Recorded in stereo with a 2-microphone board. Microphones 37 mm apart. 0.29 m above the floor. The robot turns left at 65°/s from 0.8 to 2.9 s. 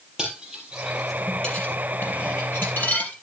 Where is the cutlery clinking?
20° right (ahead or behind), 4.5 m; by 3.1 s 60° left (ahead or behind), 4.5 m.